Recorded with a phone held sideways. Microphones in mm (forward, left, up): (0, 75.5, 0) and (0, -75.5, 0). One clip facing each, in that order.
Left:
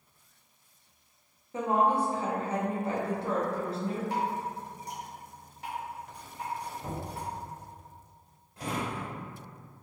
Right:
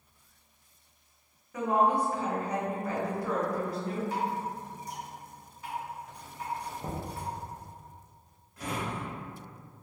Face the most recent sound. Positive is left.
turn(degrees=30)  # may be behind; listen again after turning